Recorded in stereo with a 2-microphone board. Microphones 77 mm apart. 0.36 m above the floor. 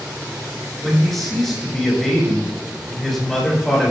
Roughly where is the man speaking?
Centre.